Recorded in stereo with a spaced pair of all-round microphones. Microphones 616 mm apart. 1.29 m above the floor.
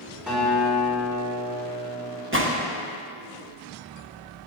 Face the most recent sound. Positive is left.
turn(degrees=-20)  # may be behind; listen again after turning